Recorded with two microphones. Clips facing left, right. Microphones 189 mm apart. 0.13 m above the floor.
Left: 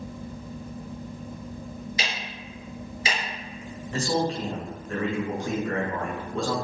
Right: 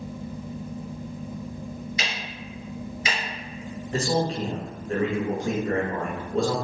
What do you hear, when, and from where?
2.0 s ticking: 30° left (ahead or behind), 1.6 m
3.9 s a man speaking: 35° right (ahead or behind), 1.5 m